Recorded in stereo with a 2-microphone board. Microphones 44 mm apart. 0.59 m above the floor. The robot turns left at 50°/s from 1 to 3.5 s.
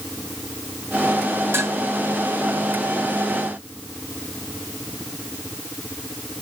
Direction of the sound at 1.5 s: 65° right (ahead or behind).